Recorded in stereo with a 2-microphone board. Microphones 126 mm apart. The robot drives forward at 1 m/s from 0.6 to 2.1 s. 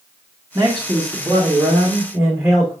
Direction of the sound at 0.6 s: 20° right (ahead or behind).